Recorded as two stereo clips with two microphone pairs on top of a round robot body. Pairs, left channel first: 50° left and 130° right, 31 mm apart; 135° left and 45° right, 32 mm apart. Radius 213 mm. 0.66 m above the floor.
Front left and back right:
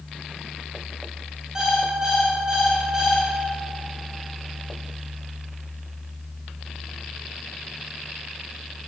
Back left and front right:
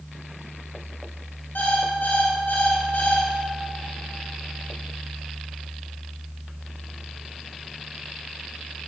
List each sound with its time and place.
1.6 s an alarm clock: 160° left, 2.5 m